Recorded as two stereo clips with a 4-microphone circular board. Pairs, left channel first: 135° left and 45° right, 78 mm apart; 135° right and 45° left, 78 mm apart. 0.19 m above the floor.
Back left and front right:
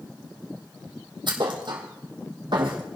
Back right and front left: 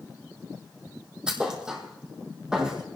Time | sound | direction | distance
1.3 | a thud | 35° right | 2 m